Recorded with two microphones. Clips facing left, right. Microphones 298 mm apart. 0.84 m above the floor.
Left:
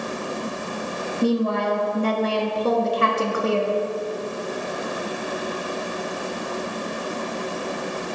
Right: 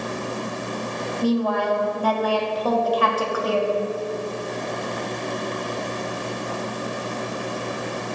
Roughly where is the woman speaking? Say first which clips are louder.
Left 1 dB; left.